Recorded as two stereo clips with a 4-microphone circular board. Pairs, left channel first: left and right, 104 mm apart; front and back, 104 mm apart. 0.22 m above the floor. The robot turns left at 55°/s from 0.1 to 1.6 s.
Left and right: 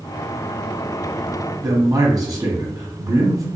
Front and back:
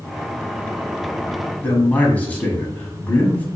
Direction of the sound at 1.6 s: 65° right.